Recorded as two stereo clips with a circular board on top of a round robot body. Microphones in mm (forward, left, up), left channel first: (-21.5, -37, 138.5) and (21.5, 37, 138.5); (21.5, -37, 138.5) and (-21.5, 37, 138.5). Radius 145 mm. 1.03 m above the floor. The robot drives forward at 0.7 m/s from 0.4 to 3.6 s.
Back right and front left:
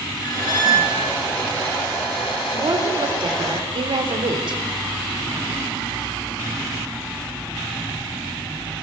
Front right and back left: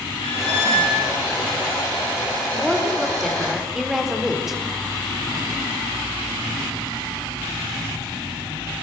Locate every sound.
0.2 s a squeak: 70° right, 4.5 m; by 1.1 s 75° right, 4.5 m
2.5 s a woman speaking: 30° left, 4.5 m; by 4.6 s 35° left, 3.5 m